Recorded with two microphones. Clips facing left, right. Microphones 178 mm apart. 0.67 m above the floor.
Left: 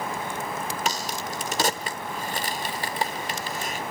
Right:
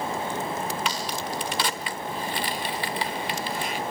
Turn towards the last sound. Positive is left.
turn(degrees=40)  # may be behind; listen again after turning